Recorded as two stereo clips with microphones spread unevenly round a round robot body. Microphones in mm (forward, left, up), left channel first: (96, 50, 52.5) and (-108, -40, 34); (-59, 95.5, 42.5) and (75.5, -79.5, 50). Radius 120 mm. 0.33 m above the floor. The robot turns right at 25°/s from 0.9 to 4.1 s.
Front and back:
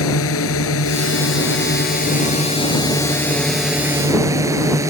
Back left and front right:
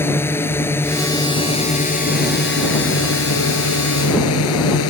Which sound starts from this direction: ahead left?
A drone, at 0.0 s.